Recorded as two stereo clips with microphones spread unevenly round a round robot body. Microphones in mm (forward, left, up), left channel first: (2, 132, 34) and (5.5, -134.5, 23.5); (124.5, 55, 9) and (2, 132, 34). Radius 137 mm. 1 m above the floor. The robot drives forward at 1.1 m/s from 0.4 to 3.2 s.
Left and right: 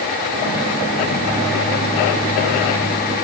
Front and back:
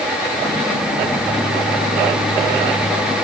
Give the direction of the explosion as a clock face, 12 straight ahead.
I don't hear an explosion.